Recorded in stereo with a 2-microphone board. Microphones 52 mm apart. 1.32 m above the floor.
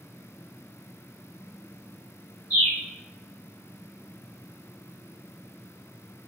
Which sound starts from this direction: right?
A bird, at 2.5 s.